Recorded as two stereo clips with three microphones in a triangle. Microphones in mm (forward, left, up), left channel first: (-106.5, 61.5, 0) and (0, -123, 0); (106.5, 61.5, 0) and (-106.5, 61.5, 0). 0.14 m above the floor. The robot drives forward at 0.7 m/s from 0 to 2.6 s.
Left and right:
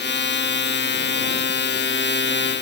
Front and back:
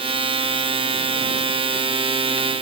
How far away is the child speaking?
No child speaking in this recording.